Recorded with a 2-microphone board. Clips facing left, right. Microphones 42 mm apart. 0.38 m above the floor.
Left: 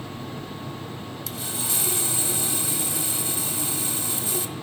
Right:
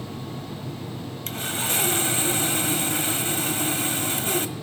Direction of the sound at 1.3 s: 55° right (ahead or behind).